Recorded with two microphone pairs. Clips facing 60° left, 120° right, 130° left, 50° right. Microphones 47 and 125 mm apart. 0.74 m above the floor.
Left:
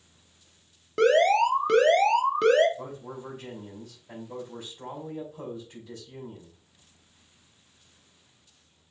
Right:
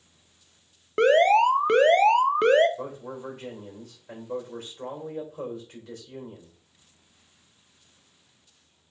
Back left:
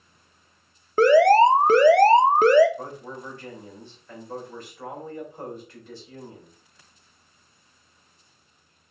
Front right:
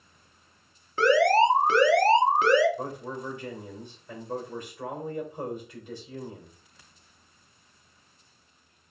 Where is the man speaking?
125° right, 2.5 m.